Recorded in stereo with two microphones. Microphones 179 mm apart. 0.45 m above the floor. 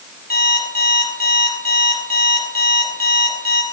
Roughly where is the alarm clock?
Left.